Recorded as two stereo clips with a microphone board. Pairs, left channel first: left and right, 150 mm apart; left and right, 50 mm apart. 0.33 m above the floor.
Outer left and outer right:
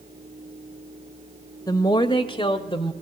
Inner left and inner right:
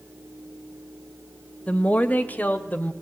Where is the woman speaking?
25° left (ahead or behind), 0.9 m; by 2.9 s 30° left (ahead or behind), 1.2 m.